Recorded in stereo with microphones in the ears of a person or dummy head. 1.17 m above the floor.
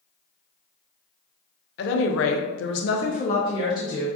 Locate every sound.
1.8 s a woman speaking: 60° left (ahead or behind), 0.7 m; by 4.1 s 20° left (ahead or behind), 1.0 m